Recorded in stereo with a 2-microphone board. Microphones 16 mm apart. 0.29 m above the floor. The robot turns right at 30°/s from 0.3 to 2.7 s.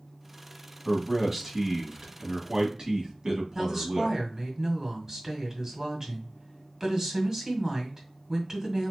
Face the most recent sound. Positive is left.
turn(degrees=-25)  # may be behind; listen again after turning